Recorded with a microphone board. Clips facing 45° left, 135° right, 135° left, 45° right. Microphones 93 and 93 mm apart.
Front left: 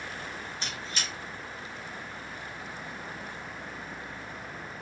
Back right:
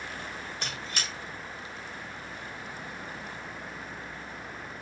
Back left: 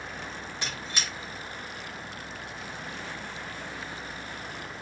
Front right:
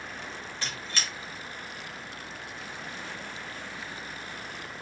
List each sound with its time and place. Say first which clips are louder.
0.6 s a squeak: back right 1 dB, even; 150° right, 1.2 m